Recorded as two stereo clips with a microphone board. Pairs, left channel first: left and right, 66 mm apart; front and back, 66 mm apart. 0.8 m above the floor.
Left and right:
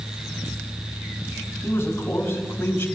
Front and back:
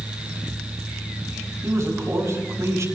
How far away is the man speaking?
About 5.5 m.